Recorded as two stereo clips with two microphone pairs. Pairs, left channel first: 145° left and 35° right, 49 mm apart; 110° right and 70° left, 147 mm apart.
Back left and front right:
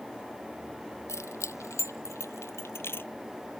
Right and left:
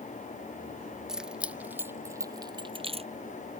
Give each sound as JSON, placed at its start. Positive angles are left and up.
{"t": 1.1, "sound": "keys jangling", "azimuth_deg": 155}